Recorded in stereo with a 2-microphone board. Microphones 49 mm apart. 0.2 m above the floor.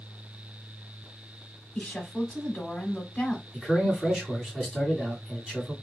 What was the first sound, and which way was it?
A woman speaking, 20° left (ahead or behind).